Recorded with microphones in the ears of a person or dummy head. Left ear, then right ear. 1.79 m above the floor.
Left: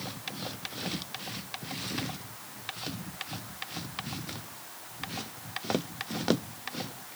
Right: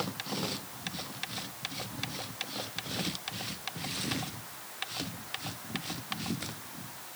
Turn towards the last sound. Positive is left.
No sound to turn to.